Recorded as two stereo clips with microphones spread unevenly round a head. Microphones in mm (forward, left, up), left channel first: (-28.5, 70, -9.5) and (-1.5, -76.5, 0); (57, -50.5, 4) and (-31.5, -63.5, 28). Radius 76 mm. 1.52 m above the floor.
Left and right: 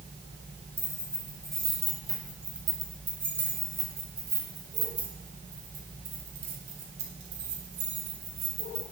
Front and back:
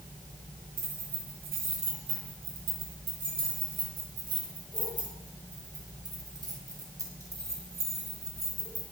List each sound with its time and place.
0.8 s keys jangling: 175° right, 7.5 m; by 8.8 s 110° right, 8.5 m